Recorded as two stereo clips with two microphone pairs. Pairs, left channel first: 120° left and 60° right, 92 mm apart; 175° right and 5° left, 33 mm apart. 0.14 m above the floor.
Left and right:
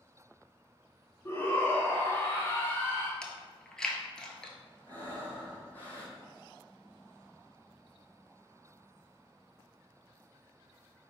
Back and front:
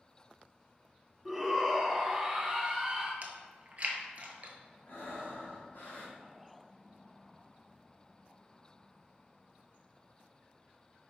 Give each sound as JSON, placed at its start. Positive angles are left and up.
{"t": 1.2, "sound": "a shout", "azimuth_deg": 85, "distance_m": 1.2}
{"t": 3.2, "sound": "chewing", "azimuth_deg": 40, "distance_m": 0.8}
{"t": 4.9, "sound": "breathing", "azimuth_deg": -170, "distance_m": 1.9}